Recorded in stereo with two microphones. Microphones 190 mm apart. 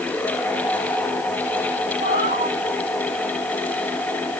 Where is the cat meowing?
80° right, 5.5 m.